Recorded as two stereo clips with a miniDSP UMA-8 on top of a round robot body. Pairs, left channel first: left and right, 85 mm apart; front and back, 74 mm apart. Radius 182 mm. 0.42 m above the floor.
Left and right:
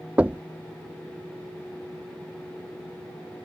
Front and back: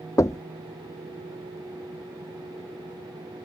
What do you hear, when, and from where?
0.2 s knocking: 20° right